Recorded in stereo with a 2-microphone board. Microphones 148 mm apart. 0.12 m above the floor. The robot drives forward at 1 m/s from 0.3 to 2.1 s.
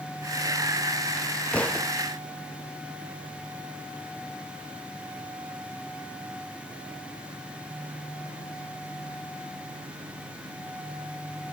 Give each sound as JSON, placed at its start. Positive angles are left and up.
{"t": 1.5, "sound": "a thud", "side_deg": 10}